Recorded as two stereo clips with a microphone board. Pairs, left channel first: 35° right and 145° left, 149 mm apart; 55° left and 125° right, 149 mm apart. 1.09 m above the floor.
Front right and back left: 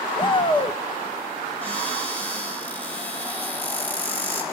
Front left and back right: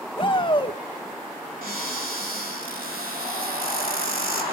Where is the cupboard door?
115° right, 5.5 m.